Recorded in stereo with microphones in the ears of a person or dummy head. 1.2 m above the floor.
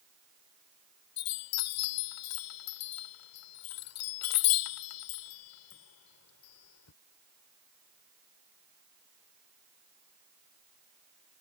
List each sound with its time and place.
1.2 s a chime: 85° left